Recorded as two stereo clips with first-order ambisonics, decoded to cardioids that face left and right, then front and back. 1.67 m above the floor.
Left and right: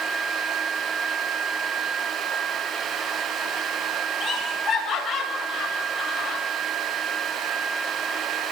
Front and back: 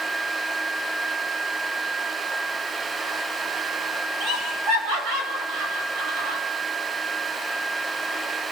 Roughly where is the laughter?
Behind left.